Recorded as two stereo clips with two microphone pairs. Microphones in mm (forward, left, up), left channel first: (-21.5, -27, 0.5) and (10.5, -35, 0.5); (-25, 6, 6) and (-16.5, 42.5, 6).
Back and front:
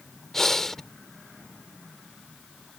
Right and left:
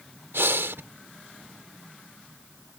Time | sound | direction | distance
0.3 | breathing | 85° left | ?